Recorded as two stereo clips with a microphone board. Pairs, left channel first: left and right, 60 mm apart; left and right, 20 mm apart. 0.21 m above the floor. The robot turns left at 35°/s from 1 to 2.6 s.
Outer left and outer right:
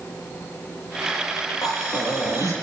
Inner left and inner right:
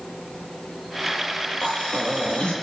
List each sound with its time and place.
1.6 s breathing: 100° left, 7 m; by 2.5 s 70° left, 7 m